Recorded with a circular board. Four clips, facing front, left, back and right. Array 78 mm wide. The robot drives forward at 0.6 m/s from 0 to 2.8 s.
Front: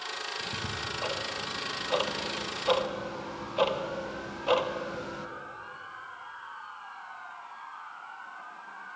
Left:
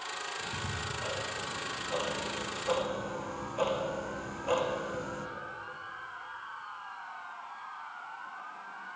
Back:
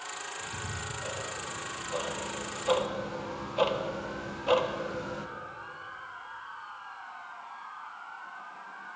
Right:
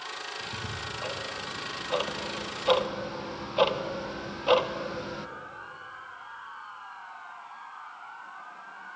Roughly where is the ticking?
Ahead.